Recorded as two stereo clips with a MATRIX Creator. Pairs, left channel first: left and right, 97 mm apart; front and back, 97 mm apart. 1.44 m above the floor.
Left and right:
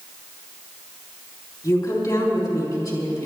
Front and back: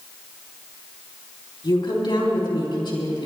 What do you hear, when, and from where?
1.6 s a woman speaking: 40° left, 4 m